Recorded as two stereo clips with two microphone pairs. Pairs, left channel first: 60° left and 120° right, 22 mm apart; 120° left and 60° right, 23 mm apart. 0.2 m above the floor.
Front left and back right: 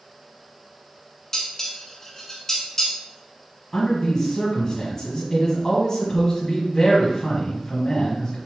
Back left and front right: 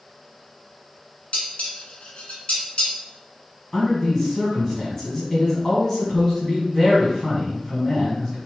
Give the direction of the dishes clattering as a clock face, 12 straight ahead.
8 o'clock.